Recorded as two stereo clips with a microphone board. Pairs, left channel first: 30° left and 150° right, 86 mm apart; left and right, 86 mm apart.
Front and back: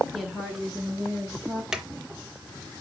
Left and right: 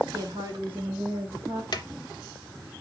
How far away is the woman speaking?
About 1.0 m.